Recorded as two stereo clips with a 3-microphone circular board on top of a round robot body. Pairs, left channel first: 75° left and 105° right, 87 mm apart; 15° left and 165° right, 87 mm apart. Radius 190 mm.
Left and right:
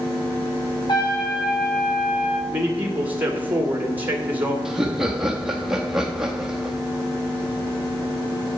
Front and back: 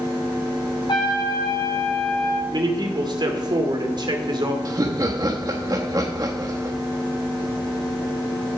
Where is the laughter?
170° left, 1.3 m.